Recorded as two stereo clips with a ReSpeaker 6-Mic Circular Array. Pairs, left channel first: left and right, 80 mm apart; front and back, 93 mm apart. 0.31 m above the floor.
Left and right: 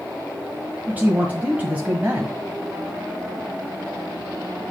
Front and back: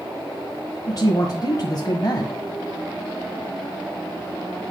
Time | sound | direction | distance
0.9 | a man speaking | 25° right | 1.4 m